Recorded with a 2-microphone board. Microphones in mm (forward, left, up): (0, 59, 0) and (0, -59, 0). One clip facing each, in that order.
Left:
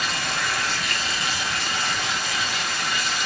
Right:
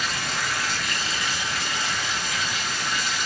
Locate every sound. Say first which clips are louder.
0.0 s running water: left 2 dB; 75° left (ahead or behind), 2.0 m